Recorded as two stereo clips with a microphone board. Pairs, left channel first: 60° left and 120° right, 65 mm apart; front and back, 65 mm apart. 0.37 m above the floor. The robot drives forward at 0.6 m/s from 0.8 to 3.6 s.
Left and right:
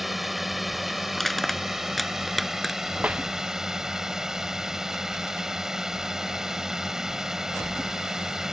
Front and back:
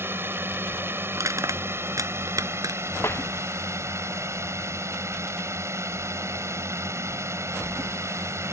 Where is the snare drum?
50° right.